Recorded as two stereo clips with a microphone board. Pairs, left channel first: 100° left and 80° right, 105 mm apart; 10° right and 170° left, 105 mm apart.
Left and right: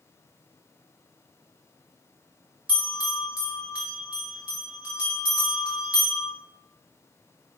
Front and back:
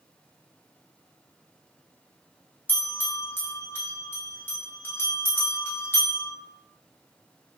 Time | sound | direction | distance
2.7 | a bell | 30° right | 0.9 m